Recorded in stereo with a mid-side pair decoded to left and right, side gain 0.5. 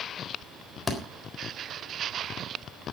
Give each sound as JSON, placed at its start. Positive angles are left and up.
{"t": 0.9, "sound": "a thud", "azimuth_deg": 25, "distance_m": 3.5}